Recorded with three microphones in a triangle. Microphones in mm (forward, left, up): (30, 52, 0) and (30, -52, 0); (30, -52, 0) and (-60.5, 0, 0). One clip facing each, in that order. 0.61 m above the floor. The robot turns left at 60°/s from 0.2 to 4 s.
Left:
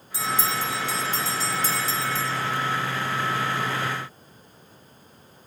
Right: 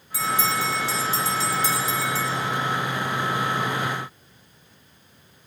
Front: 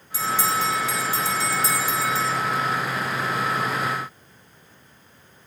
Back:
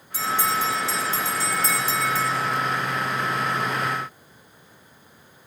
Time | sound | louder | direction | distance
0.1 | a bell | right 2 dB, even | 145° left | 1.6 m